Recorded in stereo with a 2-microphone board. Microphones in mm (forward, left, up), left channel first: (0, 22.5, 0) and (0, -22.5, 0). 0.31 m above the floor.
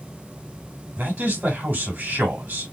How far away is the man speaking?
About 2 m.